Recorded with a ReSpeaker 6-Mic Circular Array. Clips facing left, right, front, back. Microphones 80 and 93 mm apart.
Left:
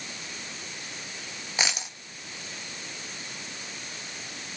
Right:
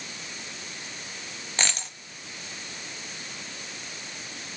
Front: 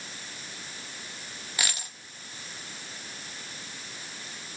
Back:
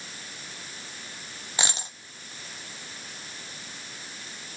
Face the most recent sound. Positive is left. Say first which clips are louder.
# left 1 dB, back 3 dB
turn(degrees=160)